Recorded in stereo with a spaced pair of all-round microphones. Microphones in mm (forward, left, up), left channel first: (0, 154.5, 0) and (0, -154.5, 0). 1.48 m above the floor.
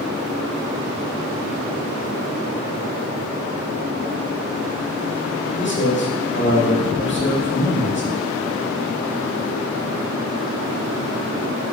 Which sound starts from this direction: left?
A man speaking, at 5.6 s.